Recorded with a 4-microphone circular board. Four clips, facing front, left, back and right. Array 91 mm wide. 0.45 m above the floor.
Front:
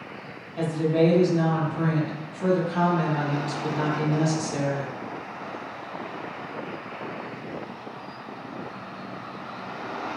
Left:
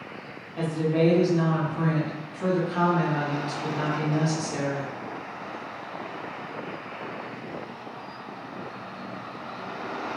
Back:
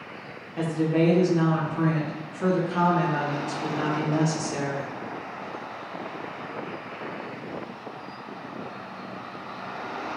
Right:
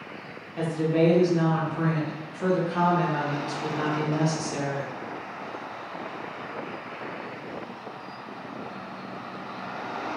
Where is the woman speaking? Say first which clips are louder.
Right 1 dB, front 1 dB; 175° right, 0.8 m.